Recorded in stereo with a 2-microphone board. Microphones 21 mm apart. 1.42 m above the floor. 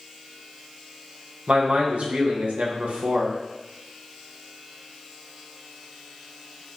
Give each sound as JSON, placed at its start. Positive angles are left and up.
{"t": 1.5, "sound": "a man speaking", "side_deg": -85, "distance_m": 1.1}